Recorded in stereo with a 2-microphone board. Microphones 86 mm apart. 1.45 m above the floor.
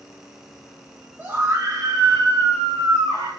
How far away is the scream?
About 0.9 m.